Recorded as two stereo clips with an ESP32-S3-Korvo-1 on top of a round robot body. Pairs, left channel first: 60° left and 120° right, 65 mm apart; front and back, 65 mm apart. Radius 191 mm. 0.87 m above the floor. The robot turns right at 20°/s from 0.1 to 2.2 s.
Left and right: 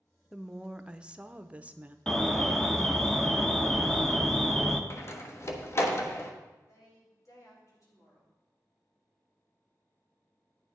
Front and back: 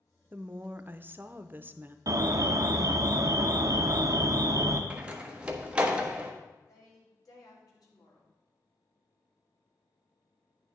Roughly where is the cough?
No cough in this recording.